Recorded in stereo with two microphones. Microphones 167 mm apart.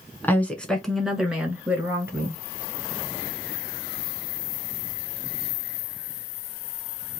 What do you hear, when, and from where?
0.2 s a woman speaking: 10° left (ahead or behind), 1.3 m; by 2.4 s 15° right (ahead or behind), 1.9 m